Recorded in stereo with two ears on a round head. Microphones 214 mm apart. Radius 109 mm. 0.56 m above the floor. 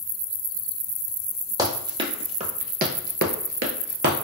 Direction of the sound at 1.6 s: 15° right (ahead or behind).